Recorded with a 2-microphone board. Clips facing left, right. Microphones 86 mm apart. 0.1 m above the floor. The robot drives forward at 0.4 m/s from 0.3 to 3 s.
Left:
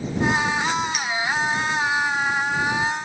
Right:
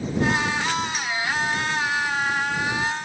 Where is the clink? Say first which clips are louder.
Left 2 dB; 30° right (ahead or behind), 0.9 m.